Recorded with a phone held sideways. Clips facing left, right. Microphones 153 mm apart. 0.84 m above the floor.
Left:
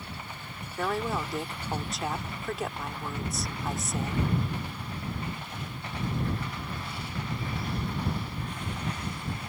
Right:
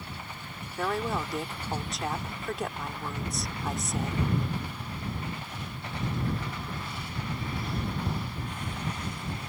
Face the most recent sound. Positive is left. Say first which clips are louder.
# even
turn(degrees=0)  # may be behind; listen again after turning